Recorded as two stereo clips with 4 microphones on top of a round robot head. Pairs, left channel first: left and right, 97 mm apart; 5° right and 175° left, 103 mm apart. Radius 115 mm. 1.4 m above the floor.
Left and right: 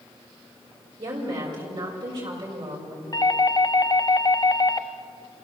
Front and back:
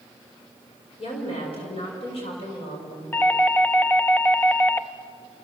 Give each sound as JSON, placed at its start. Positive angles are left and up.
{"t": 1.0, "sound": "a woman speaking", "azimuth_deg": -40, "distance_m": 6.0}
{"t": 3.1, "sound": "a doorbell", "azimuth_deg": 65, "distance_m": 0.9}